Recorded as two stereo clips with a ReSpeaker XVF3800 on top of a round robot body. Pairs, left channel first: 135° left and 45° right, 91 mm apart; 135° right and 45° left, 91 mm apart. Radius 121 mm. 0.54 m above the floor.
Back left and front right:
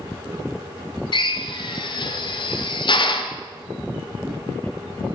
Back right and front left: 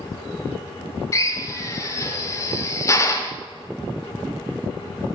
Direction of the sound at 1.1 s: 170° left.